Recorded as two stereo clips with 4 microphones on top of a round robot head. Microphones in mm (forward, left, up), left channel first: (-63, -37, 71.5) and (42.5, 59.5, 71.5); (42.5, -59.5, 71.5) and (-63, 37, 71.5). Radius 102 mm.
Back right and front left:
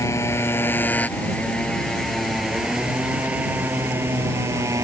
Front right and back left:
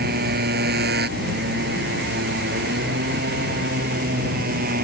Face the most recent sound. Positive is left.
turn(degrees=110)